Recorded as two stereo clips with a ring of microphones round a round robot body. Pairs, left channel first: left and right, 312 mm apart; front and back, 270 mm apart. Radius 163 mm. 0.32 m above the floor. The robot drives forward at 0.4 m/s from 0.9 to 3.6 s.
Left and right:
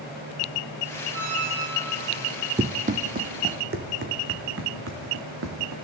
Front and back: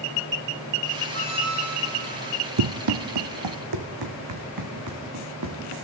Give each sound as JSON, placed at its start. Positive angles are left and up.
{"t": 1.1, "sound": "a squeak", "azimuth_deg": -115, "distance_m": 8.5}
{"t": 2.6, "sound": "running footsteps", "azimuth_deg": -160, "distance_m": 0.7}